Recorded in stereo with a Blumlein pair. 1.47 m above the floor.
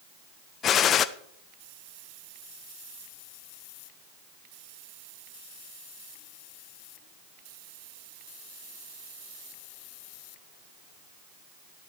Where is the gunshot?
30° left, 0.6 m.